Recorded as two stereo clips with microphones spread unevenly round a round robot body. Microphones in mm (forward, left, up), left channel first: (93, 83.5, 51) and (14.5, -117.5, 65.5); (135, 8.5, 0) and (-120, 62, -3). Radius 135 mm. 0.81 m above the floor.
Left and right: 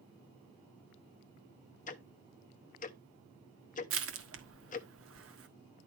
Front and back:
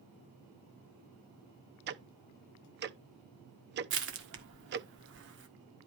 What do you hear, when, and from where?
1.9 s ticking: 120° left, 0.7 m
3.9 s crushing: 140° right, 1.4 m